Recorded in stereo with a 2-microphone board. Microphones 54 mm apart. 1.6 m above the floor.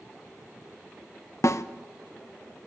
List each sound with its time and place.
1.4 s a snare drum: 65° left (ahead or behind), 0.7 m